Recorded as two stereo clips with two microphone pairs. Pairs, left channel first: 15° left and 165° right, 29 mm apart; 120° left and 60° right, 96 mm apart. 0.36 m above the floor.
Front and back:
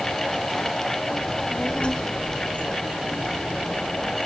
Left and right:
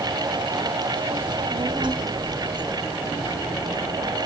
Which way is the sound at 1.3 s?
40° right.